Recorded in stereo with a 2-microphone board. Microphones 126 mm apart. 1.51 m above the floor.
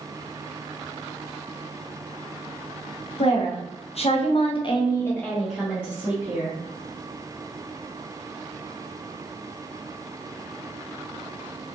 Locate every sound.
3.2 s a woman speaking: 50° left (ahead or behind), 1.1 m; by 6.5 s 20° right (ahead or behind), 1.0 m